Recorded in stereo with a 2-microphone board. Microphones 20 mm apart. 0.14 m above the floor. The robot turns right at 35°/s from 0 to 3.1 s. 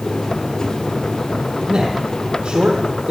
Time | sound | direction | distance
1.7 | a man speaking | 45° right (ahead or behind) | 3.5 m